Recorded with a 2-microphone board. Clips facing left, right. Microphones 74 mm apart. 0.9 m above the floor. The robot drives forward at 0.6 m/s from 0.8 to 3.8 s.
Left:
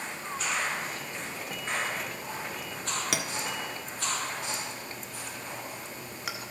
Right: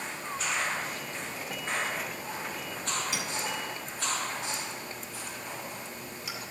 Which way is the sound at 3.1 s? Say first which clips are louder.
Left 1 dB; 70° left (ahead or behind).